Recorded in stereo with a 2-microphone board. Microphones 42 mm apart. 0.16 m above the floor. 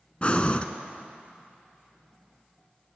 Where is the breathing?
30° left (ahead or behind), 0.5 m.